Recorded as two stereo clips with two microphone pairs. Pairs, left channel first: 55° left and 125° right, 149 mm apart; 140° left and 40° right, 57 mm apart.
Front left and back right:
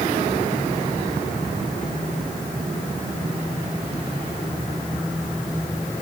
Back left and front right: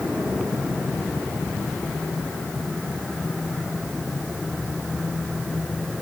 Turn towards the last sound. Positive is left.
No sound to turn to.